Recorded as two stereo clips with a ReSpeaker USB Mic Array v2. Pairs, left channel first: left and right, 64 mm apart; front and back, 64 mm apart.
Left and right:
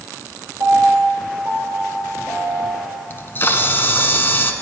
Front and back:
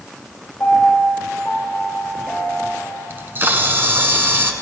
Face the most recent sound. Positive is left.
turn(degrees=135)